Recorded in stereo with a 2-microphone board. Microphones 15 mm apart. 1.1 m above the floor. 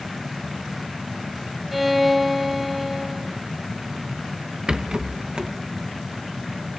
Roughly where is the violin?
Centre.